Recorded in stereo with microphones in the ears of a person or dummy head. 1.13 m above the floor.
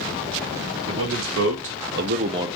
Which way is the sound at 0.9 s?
60° right (ahead or behind).